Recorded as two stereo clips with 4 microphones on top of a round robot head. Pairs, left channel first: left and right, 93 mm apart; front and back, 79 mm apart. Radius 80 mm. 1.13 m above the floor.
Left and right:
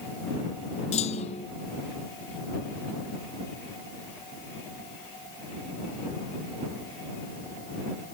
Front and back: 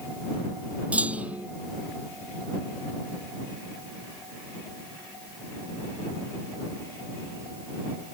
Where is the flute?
I don't hear a flute.